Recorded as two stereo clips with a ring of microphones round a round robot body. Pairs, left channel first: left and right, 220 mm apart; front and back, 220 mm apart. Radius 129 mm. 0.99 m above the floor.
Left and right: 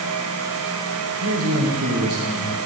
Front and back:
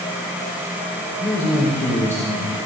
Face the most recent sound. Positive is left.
turn(degrees=-80)